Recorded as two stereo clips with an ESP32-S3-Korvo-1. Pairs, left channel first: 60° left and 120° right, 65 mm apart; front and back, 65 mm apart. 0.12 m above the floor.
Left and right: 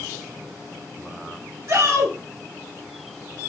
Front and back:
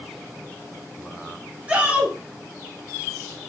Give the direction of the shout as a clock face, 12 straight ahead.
4 o'clock.